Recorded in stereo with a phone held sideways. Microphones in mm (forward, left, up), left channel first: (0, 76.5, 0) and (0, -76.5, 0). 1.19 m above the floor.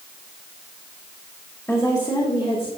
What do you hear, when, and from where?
1.7 s a woman speaking: 15° left (ahead or behind), 1.5 m; by 2.7 s 40° left (ahead or behind), 1.8 m